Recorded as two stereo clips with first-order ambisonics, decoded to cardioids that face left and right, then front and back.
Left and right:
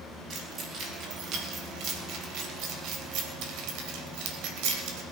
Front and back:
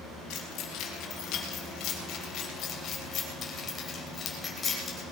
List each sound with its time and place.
0.3 s keys jangling: 35° right, 3.5 m; by 5.0 s 80° right, 3 m